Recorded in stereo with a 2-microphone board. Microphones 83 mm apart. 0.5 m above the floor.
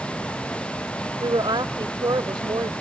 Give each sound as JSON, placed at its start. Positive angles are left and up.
{"t": 1.2, "sound": "a woman speaking", "side_deg": -65}